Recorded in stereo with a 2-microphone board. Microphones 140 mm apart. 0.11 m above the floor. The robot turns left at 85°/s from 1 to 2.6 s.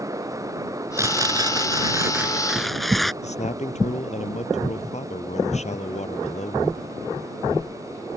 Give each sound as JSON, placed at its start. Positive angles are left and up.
{"t": 1.0, "sound": "tearing paper", "side_deg": -20}
{"t": 3.2, "sound": "a man speaking", "side_deg": 50}